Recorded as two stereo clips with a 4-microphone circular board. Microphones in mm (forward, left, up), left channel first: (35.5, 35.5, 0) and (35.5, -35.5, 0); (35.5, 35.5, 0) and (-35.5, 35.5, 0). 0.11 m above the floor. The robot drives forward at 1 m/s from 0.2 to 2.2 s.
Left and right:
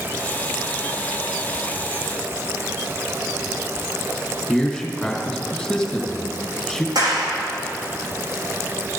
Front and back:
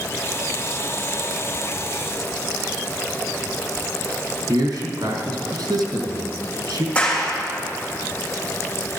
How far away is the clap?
About 4.5 m.